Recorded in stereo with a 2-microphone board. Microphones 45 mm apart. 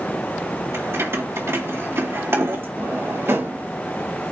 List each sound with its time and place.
0.7 s keys jangling: 65° right (ahead or behind), 2.5 m
2.8 s a drawer: 70° right (ahead or behind), 4 m